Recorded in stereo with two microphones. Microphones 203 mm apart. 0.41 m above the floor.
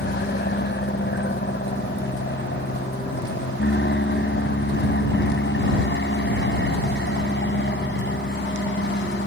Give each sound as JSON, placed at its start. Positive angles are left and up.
{"t": 0.0, "sound": "an aircraft", "side_deg": 60}